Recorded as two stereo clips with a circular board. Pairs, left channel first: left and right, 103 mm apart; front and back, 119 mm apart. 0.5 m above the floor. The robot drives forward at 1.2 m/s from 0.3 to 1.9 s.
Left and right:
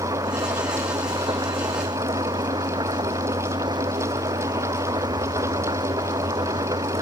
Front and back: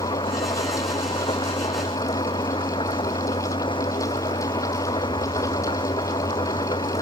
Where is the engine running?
40° right; by 7.0 s 45° right.